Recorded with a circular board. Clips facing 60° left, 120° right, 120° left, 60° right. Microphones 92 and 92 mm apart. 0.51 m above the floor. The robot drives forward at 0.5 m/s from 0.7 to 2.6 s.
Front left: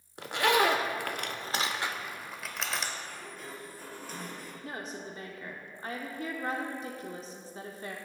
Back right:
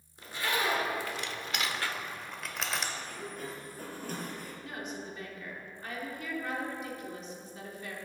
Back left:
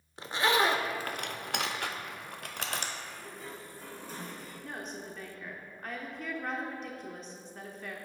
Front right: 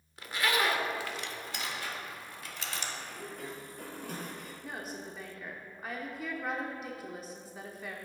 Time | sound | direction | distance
0.2 | a zipper | 60° left | 0.5 m
3.0 | a sliding door | 80° right | 1.7 m
4.6 | a woman speaking | 20° left | 0.8 m